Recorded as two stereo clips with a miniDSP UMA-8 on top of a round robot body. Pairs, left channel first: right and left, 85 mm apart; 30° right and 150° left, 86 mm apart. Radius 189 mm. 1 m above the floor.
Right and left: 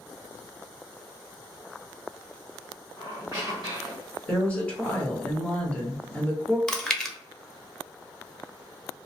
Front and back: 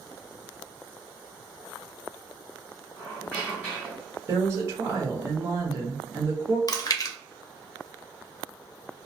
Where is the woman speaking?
160° right, 1.2 m.